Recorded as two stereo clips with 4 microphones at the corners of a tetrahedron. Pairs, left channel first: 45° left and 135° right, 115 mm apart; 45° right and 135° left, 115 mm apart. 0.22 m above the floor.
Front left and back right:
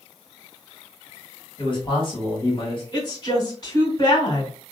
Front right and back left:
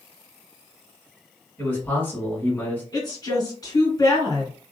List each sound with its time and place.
1.6 s a man speaking: 25° left, 1.7 m
2.9 s a woman speaking: straight ahead, 1.8 m